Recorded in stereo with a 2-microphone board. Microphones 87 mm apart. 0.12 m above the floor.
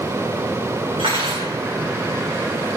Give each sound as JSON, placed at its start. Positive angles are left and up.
{"t": 1.0, "sound": "cutlery clinking", "side_deg": -75, "distance_m": 6.0}